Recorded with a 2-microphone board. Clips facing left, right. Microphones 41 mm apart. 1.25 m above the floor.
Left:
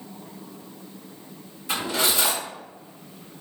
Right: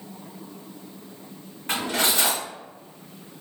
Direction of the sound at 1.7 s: 50° right (ahead or behind).